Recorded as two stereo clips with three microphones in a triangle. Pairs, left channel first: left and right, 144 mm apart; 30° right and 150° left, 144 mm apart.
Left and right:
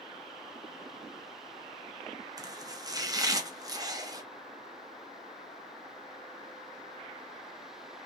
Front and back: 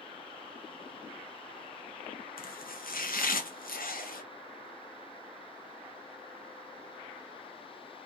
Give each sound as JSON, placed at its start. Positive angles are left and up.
{"t": 2.4, "sound": "chopping", "azimuth_deg": -25, "distance_m": 1.0}